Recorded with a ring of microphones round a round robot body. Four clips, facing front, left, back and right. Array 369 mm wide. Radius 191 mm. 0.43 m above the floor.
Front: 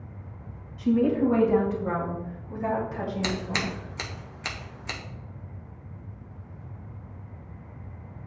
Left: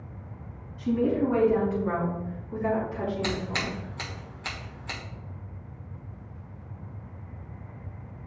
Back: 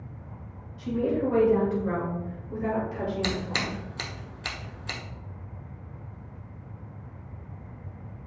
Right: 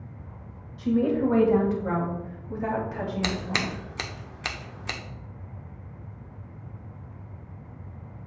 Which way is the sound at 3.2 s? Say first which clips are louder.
Right 1 dB, front 1 dB; 80° right.